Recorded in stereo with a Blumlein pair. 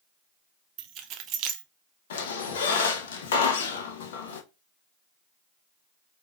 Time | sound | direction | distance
0.8 | keys jangling | 35° right | 0.5 m
2.1 | a squeak | 60° left | 0.7 m